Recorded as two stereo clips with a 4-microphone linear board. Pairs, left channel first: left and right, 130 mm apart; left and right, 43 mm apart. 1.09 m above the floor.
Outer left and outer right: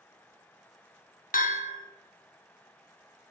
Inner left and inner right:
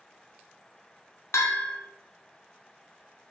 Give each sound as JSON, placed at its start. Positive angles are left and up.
{"t": 1.3, "sound": "a bell", "side_deg": 85, "distance_m": 0.8}